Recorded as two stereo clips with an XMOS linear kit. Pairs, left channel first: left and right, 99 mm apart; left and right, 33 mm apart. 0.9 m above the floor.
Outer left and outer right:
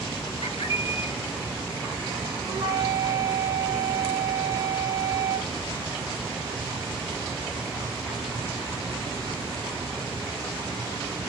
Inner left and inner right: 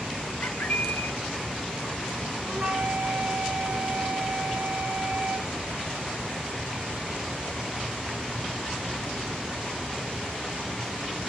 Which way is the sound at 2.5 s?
50° right (ahead or behind).